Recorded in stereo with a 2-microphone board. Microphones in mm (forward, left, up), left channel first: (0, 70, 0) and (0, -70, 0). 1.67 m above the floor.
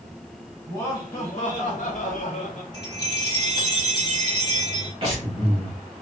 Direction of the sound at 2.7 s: 30° left (ahead or behind).